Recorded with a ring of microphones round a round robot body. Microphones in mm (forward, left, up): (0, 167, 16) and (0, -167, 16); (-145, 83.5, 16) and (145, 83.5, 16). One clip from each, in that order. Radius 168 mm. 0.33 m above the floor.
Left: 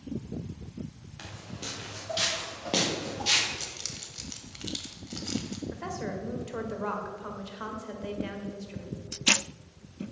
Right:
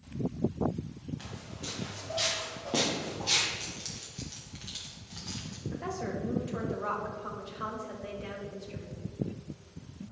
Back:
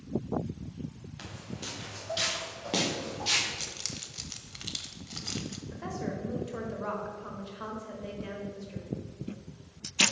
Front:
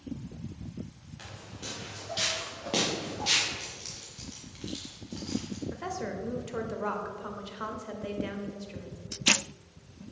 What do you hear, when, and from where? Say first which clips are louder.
1.2 s footsteps: left 7 dB, back 1 dB; 130° left, 3 m; by 3.5 s 90° left, 3.5 m
3.6 s keys jangling: left 3 dB, back 3 dB; 150° left, 1.2 m
5.7 s a woman speaking: right 1 dB, front 1 dB; 35° left, 1.3 m